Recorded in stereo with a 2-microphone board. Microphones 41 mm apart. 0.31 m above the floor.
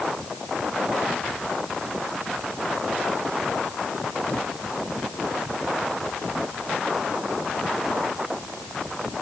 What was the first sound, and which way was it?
Only background noise.